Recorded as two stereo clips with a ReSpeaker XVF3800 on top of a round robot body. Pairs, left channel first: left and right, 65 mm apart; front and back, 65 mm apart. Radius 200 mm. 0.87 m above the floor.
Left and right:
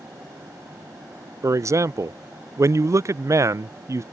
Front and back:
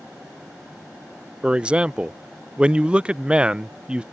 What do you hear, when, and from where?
1.4 s a man speaking: 110° right